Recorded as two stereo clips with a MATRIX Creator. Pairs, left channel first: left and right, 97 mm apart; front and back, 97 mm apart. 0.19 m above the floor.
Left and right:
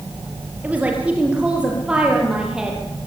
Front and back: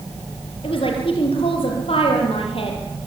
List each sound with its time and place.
0.6 s a woman speaking: 15° right, 5 m; by 2.8 s 5° right, 6 m